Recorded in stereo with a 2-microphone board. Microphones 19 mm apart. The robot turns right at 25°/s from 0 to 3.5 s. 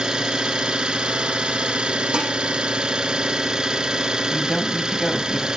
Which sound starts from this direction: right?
Dishes clattering, at 2.1 s.